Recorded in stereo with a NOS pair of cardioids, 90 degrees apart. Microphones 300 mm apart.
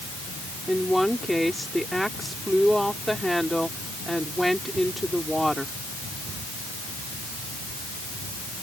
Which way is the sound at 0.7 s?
Straight ahead.